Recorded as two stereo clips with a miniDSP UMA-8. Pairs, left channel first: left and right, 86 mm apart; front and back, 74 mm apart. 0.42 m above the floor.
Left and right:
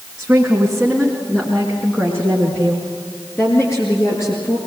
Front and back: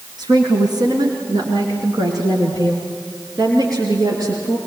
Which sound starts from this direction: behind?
A woman speaking, at 0.2 s.